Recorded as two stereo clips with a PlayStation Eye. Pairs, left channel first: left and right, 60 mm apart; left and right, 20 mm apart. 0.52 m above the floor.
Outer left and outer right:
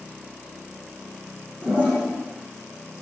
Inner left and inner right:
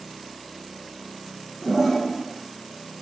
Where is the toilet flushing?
25° right (ahead or behind), 8 m.